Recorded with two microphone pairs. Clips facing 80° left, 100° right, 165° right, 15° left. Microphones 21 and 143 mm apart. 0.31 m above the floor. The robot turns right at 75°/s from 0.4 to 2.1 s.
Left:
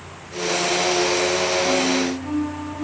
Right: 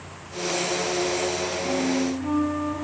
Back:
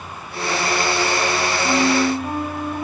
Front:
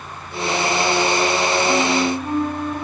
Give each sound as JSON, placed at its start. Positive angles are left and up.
{"t": 1.6, "sound": "a flute", "azimuth_deg": 145, "distance_m": 0.8}